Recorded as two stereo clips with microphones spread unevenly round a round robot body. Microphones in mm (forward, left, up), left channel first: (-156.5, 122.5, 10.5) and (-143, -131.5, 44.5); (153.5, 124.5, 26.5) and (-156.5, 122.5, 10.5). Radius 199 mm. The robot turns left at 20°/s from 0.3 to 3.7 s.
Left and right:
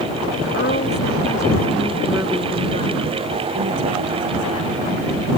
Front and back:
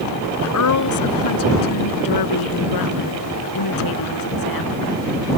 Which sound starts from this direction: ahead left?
A woman speaking, at 0.4 s.